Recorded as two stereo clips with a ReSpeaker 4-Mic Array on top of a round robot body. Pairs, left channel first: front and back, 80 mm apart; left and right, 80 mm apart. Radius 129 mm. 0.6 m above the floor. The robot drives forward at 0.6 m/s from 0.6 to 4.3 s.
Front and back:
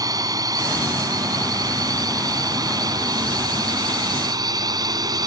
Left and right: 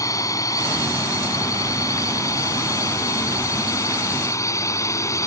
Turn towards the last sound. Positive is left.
turn(degrees=140)